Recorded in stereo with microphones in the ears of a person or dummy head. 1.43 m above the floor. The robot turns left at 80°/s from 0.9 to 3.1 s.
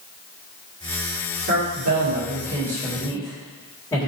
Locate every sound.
1.5 s a man speaking: 65° right, 2.5 m; by 4.1 s 165° left, 2.5 m